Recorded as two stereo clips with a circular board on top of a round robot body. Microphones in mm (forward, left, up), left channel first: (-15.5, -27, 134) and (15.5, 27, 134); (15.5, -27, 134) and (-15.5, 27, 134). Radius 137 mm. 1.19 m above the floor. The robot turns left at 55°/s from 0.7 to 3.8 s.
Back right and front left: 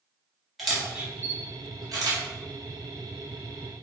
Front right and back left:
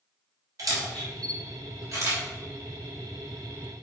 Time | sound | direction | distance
0.6 | a camera shutter | 145° left | 3 m